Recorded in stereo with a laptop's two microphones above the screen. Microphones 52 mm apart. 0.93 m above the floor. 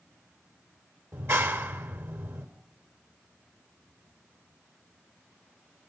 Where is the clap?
55° right (ahead or behind), 3.5 m.